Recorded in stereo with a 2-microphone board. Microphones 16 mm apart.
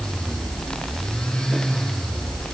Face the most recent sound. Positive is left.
No sound to turn to.